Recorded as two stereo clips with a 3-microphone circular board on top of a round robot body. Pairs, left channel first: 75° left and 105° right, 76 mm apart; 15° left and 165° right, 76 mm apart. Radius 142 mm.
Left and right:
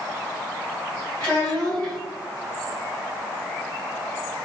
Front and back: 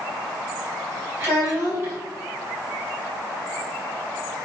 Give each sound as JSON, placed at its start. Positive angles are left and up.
{"t": 1.2, "sound": "a child speaking", "azimuth_deg": 140, "distance_m": 1.9}